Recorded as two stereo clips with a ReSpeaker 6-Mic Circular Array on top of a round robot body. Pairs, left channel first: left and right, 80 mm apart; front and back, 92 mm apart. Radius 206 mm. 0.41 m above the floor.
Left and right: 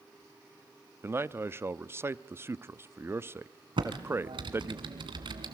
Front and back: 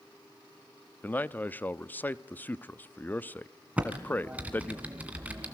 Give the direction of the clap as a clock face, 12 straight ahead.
I don't hear a clap.